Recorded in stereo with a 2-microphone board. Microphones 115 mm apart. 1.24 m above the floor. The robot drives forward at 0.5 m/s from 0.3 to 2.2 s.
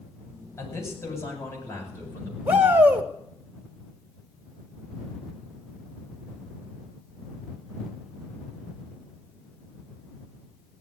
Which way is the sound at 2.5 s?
15° right (ahead or behind).